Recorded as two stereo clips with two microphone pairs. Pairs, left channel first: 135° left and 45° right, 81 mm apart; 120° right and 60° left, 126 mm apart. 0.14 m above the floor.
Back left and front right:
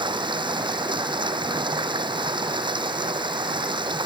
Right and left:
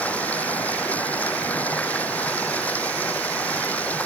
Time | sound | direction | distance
0.0 | running water | 40° right | ?